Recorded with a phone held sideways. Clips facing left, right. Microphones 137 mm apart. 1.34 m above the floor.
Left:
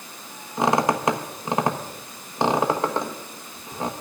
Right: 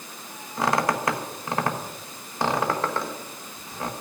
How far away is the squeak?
About 1.2 m.